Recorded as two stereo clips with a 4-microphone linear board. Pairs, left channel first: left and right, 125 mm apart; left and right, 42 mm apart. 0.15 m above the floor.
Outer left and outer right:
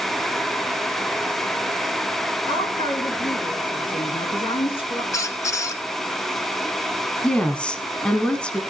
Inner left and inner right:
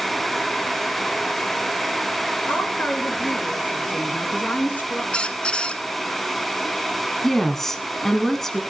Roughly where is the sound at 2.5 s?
Left.